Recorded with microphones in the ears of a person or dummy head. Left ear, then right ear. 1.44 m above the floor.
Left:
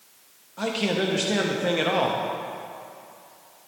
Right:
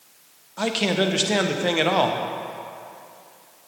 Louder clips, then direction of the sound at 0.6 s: Right 3 dB; 20° right (ahead or behind).